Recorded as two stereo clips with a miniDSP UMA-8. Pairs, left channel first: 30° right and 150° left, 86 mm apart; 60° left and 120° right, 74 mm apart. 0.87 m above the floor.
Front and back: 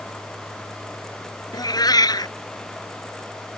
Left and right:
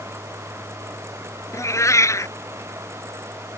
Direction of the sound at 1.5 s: 10° left.